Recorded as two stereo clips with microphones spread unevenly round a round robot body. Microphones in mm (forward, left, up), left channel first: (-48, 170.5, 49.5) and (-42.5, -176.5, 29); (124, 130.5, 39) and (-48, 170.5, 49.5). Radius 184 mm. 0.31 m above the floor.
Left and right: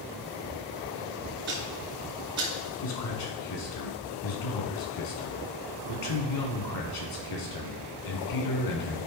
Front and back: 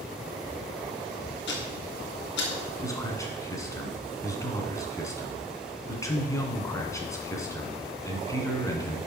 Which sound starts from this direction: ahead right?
Ticking, at 1.5 s.